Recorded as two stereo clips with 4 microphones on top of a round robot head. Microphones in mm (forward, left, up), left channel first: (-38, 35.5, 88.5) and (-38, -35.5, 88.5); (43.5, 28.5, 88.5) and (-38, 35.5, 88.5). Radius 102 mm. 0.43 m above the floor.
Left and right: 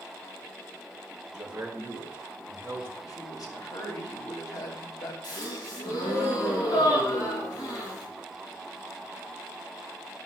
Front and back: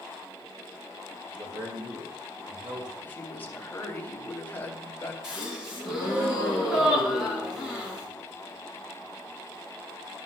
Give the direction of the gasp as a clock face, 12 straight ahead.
9 o'clock.